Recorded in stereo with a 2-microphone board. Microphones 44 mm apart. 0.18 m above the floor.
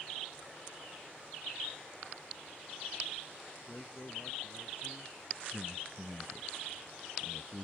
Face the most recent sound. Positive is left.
turn(degrees=-5)  # may be behind; listen again after turning